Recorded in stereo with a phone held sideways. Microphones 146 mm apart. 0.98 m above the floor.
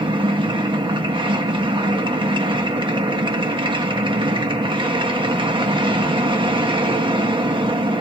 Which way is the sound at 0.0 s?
35° right (ahead or behind).